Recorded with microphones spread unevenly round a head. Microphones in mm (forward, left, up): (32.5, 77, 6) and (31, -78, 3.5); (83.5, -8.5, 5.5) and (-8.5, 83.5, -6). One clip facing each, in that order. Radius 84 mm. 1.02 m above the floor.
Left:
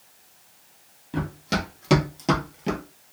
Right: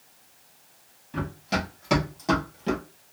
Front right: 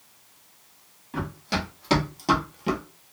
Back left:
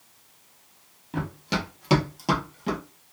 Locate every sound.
1.1 s running footsteps: 75° left, 1.8 m; by 2.8 s 15° left, 1.2 m